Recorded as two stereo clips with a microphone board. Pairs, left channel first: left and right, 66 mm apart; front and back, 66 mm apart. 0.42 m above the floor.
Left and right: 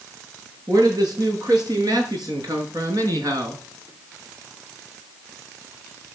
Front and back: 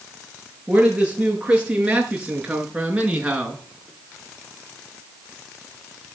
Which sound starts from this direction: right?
A man speaking, at 0.7 s.